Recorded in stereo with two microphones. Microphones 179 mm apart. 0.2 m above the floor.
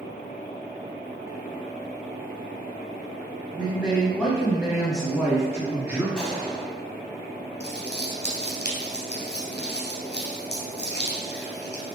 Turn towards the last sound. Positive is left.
turn(degrees=70)  # may be behind; listen again after turning